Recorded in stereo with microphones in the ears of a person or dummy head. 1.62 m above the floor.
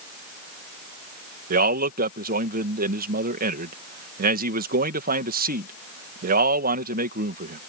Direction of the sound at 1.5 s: 40° right (ahead or behind).